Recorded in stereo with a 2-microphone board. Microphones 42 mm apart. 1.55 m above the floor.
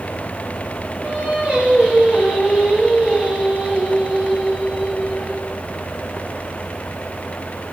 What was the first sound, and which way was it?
Singing, 35° right (ahead or behind).